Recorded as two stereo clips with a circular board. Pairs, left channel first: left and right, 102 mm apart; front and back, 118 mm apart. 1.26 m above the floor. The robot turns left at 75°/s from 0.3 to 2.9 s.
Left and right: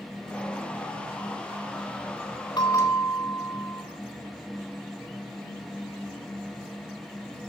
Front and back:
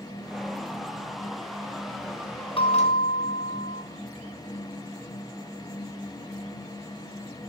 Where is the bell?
40° left, 3.5 m; by 3.8 s 15° left, 3.5 m.